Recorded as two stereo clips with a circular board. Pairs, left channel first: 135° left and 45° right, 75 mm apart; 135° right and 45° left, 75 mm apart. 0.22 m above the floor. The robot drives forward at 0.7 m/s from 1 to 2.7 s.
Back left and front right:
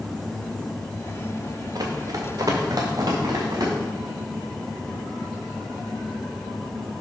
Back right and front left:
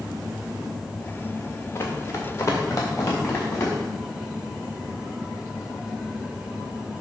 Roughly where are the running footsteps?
Right.